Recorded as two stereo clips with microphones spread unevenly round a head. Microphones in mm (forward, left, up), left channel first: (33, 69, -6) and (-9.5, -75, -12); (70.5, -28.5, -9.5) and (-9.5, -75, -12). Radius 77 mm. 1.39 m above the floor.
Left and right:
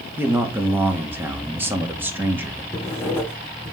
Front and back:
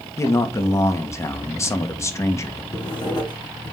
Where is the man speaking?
30° right, 1.6 m.